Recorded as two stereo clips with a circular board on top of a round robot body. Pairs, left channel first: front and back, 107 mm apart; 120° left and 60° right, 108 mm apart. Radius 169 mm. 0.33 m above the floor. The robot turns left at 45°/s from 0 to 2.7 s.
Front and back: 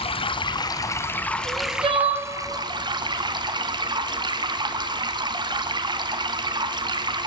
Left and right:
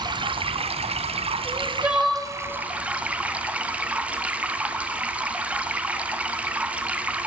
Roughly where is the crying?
Behind right.